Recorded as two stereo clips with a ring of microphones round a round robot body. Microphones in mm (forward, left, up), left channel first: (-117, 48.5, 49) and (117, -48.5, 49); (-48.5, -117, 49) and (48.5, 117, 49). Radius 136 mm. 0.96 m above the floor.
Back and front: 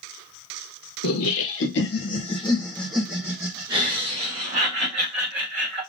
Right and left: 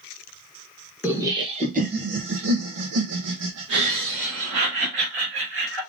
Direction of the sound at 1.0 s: 150° left.